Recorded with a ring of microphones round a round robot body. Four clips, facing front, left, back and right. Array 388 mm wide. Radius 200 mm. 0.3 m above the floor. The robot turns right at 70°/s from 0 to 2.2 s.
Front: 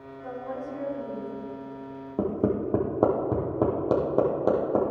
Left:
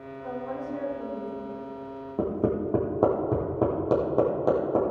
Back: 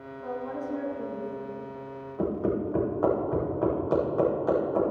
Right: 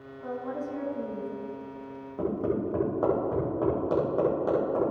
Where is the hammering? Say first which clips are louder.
Left 2 dB, front 2 dB; 30° left, 4.5 m.